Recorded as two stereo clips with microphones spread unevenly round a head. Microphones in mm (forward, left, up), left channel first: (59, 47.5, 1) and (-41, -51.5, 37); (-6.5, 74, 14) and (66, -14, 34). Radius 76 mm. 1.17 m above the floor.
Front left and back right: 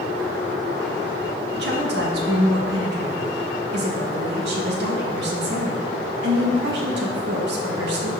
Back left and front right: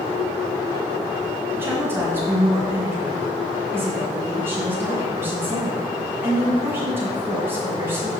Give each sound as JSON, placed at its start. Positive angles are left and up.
{"t": 1.6, "sound": "a woman speaking", "azimuth_deg": -125, "distance_m": 1.4}